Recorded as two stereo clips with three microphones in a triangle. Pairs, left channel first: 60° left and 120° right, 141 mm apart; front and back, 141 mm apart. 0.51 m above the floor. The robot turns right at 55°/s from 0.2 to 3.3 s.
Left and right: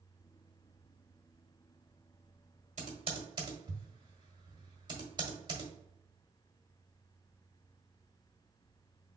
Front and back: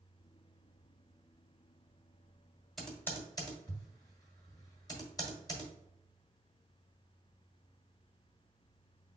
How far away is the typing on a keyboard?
About 1.6 m.